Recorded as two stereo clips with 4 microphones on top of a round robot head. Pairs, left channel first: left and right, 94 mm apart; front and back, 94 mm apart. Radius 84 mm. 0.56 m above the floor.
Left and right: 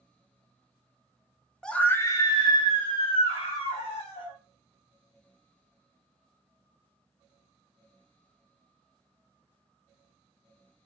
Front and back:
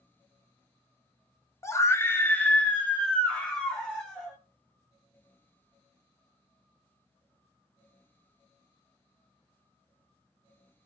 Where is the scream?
10° left, 0.7 m; by 4.3 s 80° left, 2.5 m.